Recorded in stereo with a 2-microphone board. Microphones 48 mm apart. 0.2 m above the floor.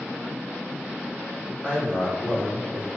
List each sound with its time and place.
1.6 s a man speaking: 30° left (ahead or behind), 1.5 m